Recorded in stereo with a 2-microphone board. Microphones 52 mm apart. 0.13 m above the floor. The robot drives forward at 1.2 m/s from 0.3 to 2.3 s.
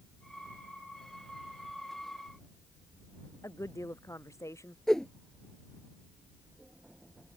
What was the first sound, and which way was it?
A woman speaking, 85° left.